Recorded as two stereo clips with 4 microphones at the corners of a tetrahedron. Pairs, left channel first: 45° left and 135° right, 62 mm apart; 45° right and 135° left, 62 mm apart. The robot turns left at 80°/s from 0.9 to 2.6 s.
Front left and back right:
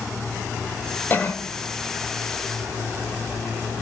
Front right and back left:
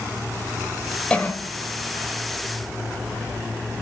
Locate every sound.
1.1 s a cough: 20° left, 1.2 m; by 1.4 s 5° right, 1.2 m